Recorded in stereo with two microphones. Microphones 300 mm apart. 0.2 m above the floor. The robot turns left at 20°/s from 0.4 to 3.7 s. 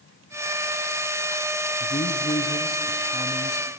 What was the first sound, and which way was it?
A man speaking, 15° left (ahead or behind).